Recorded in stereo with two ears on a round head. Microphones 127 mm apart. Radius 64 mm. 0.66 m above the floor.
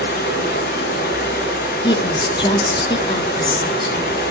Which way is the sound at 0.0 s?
70° left (ahead or behind).